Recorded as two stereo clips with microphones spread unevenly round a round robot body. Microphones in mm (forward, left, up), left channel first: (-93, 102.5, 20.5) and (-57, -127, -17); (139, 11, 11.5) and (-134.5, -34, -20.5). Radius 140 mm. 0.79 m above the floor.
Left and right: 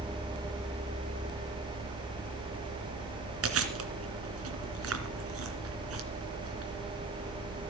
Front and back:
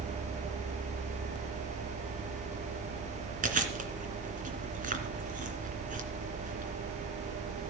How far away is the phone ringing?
I don't hear a phone ringing.